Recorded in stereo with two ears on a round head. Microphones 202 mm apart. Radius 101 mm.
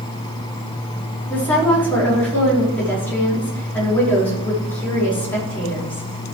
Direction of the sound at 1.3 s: 10° left (ahead or behind).